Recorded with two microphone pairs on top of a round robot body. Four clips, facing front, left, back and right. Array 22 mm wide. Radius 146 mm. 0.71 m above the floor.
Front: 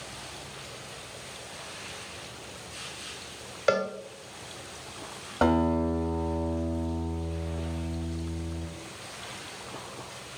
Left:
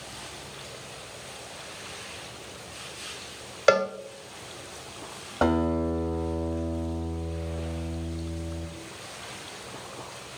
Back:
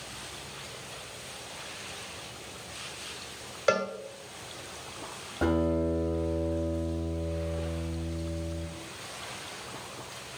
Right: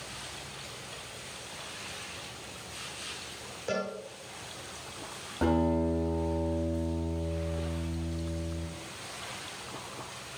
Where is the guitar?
35° left, 2 m.